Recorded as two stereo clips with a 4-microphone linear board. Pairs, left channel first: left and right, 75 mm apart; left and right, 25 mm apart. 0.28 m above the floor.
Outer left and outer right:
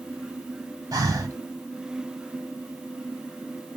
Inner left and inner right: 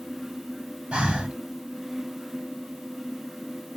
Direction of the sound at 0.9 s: 50° right (ahead or behind).